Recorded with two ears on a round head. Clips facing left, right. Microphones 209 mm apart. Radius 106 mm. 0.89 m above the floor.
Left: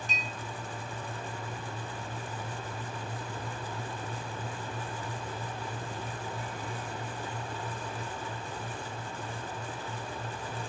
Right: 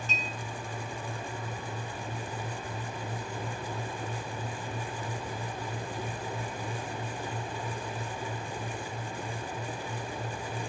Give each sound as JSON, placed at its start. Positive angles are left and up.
{"t": 0.1, "sound": "a clink", "side_deg": 15, "distance_m": 2.5}